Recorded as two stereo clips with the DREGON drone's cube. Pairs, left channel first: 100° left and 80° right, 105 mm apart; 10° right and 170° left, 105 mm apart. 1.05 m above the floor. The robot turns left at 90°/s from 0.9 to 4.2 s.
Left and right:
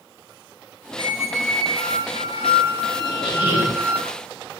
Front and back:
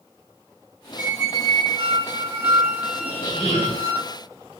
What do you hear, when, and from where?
1.0 s a squeak: 110° right, 0.9 m; by 4.0 s 20° right, 0.9 m
3.0 s a squeak: 120° left, 1.6 m; by 3.8 s 45° left, 1.6 m